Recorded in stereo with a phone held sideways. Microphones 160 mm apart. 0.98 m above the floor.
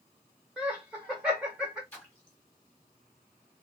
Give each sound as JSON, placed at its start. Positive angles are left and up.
{"t": 0.6, "sound": "laughter", "side_deg": -5, "distance_m": 0.8}
{"t": 1.9, "sound": "a splash", "side_deg": 15, "distance_m": 1.5}